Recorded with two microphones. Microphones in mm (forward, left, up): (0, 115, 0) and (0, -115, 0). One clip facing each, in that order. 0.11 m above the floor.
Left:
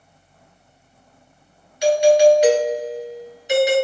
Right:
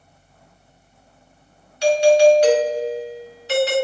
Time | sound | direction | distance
1.8 | a doorbell | 15° left (ahead or behind) | 2 m